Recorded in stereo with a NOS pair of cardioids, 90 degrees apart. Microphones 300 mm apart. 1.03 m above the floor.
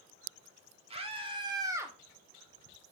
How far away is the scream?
About 2.5 m.